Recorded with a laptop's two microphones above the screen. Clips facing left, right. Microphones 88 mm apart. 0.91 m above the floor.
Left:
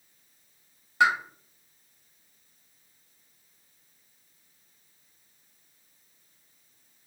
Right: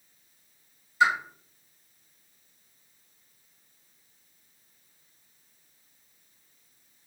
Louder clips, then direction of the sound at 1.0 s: Even; 70° left (ahead or behind).